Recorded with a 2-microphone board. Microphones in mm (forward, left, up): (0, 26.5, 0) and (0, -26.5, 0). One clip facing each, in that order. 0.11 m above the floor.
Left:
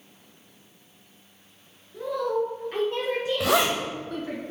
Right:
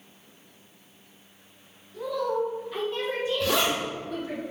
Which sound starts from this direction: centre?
A woman speaking, at 1.9 s.